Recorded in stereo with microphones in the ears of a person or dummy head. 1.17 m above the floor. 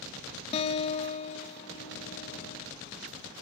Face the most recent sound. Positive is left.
turn(degrees=35)  # may be behind; listen again after turning